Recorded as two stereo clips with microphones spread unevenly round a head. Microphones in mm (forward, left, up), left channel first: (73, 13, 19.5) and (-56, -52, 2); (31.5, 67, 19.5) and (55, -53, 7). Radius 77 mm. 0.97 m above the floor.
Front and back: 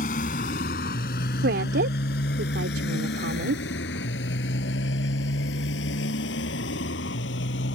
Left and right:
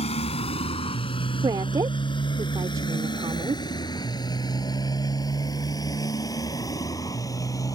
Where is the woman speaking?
145° right.